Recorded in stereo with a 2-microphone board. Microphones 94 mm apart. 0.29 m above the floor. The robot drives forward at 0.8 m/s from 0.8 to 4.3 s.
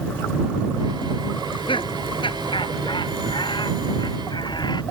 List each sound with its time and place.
1.4 s laughter: 70° left (ahead or behind); by 4.8 s 55° left (ahead or behind)